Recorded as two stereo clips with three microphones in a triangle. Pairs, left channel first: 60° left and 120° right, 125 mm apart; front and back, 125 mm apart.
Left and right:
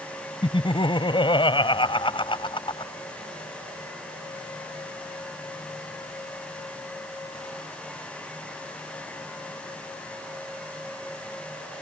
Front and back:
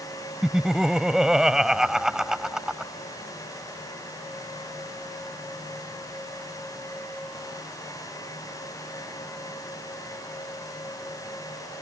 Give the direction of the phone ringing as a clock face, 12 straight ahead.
No phone ringing in this recording.